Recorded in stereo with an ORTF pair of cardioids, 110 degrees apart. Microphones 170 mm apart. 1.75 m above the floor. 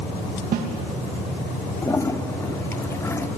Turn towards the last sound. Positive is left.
turn(degrees=15)